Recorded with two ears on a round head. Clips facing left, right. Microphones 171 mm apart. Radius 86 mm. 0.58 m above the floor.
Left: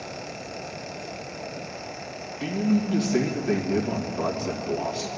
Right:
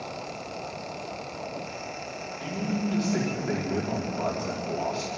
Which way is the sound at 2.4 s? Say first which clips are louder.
Left 6 dB; 30° left (ahead or behind).